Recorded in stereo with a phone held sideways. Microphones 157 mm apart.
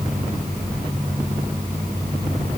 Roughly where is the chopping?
No chopping in this recording.